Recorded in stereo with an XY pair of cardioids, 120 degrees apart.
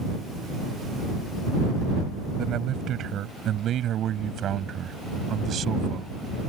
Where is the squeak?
No squeak in this recording.